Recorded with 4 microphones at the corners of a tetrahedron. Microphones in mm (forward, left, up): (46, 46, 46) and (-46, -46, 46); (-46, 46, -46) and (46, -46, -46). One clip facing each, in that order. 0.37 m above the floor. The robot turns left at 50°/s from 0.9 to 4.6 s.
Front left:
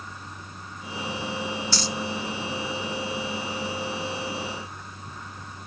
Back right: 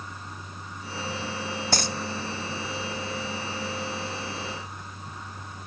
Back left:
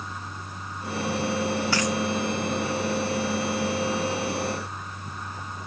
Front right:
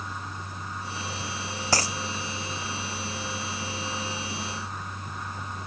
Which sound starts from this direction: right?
A dropped coin, at 1.7 s.